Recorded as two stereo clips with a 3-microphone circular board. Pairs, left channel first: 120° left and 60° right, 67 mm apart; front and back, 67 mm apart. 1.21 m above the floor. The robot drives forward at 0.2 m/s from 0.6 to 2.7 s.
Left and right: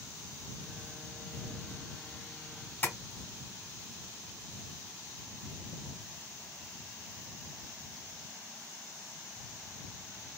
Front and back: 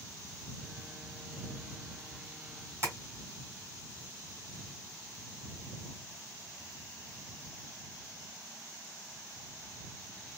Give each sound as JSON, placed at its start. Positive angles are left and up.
{"t": 2.8, "sound": "tapping", "azimuth_deg": 165, "distance_m": 1.3}